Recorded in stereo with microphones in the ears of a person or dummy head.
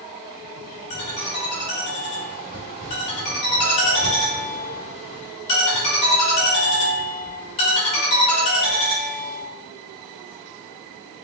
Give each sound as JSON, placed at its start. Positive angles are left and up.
{"t": 0.9, "sound": "a ringtone", "side_deg": 25, "distance_m": 1.2}